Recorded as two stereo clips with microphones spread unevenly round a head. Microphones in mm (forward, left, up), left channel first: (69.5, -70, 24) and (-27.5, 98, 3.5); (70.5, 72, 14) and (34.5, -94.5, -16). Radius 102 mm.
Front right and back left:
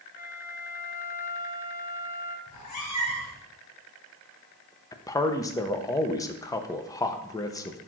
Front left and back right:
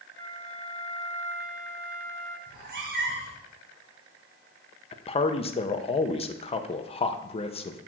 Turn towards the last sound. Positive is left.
turn(degrees=15)